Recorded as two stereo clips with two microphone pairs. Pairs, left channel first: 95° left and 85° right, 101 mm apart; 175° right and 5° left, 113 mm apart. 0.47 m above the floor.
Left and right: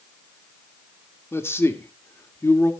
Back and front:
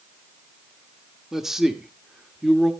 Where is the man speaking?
85° left, 1.1 m.